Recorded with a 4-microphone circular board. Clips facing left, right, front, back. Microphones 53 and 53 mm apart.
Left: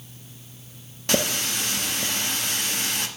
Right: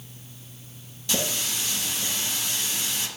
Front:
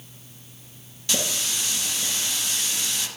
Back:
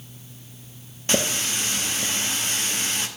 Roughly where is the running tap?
Behind left.